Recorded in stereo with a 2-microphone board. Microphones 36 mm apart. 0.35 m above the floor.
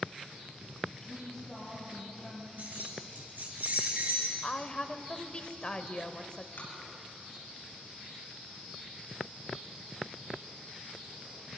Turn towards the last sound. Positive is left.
turn(degrees=75)  # may be behind; listen again after turning